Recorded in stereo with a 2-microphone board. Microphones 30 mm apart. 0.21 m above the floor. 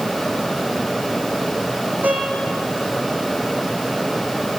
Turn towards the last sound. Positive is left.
turn(degrees=-80)